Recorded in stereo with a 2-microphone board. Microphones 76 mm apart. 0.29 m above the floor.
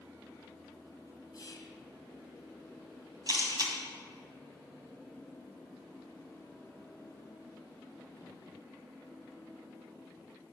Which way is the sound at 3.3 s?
55° right (ahead or behind).